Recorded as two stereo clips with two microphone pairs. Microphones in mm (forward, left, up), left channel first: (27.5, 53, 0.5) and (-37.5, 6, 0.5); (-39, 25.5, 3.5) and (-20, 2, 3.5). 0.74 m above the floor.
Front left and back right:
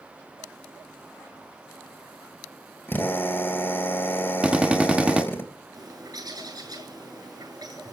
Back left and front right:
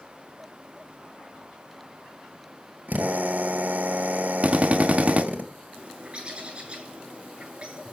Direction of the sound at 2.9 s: 25° right.